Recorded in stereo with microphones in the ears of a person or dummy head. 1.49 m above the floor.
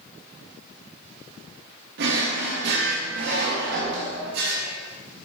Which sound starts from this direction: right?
A drawer, at 2.0 s.